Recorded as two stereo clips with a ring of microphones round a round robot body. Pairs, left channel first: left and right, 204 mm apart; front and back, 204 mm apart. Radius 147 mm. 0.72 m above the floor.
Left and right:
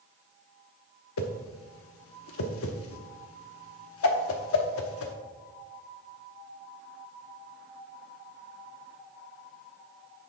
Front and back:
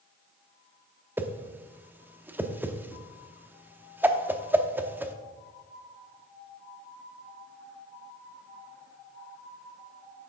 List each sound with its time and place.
1.2 s a whoosh: 100° left, 0.9 m